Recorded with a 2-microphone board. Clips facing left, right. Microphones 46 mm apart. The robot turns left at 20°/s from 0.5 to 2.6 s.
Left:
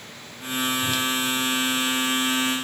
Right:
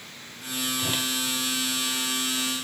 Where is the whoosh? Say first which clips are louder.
Left 4 dB; 25° right (ahead or behind), 1.9 m; by 1.1 s 20° right (ahead or behind), 1.9 m.